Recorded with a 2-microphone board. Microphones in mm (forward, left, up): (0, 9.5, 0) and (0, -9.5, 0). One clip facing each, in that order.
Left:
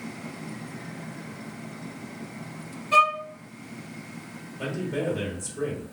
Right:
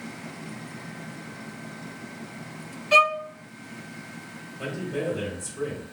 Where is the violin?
90° right, 0.9 m.